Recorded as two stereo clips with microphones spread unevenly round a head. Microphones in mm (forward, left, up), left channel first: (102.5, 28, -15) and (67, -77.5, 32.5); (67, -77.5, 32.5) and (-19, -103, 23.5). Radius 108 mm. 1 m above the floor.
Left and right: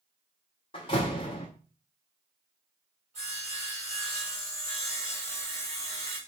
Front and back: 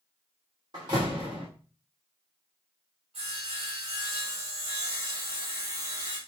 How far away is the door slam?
About 0.9 m.